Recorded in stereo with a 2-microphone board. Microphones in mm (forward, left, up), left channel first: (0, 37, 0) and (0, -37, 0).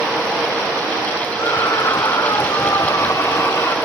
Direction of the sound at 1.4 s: 45° left (ahead or behind).